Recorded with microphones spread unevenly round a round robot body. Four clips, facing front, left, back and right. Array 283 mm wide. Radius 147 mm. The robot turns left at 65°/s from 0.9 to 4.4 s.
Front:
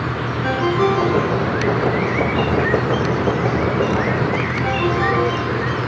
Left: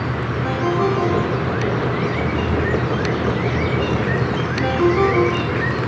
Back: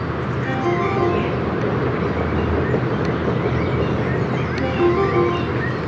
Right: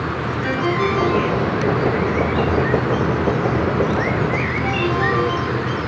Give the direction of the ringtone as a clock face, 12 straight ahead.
11 o'clock.